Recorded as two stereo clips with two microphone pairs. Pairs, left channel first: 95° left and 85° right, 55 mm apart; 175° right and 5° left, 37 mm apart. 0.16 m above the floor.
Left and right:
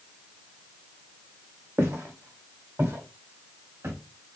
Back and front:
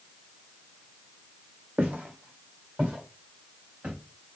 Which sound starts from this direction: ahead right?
Footsteps, at 1.8 s.